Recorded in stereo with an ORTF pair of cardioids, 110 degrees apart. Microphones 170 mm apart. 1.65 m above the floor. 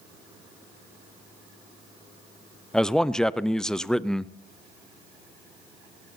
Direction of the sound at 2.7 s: 5° left.